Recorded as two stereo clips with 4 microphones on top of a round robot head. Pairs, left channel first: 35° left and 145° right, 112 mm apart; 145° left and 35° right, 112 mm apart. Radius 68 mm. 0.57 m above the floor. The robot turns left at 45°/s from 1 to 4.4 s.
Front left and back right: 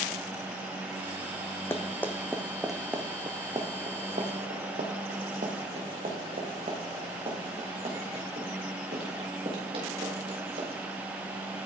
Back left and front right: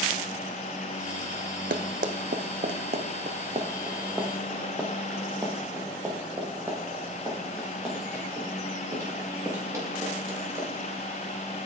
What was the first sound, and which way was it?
Running footsteps, 35° right.